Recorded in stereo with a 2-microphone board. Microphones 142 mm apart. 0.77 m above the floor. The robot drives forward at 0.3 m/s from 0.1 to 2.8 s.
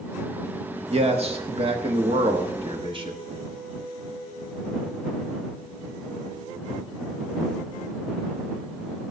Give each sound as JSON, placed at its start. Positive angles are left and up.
{"t": 0.9, "sound": "a man speaking", "side_deg": -50, "distance_m": 1.1}